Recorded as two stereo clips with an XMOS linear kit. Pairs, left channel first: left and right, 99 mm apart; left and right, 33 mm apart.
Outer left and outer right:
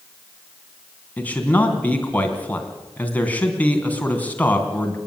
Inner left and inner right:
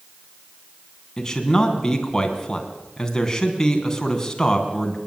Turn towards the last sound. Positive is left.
turn(degrees=15)  # may be behind; listen again after turning